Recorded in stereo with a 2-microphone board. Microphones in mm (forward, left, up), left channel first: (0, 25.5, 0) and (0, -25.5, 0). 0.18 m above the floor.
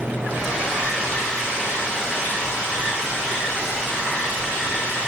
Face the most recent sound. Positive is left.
turn(degrees=-20)  # may be behind; listen again after turning